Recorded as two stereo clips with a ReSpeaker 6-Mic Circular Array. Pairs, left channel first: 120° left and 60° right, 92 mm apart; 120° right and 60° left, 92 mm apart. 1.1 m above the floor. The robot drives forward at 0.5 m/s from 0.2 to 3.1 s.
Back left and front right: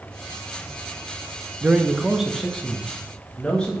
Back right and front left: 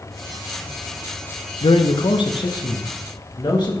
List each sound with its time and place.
1.6 s a man speaking: 125° right, 0.5 m; by 3.8 s 160° right, 1.1 m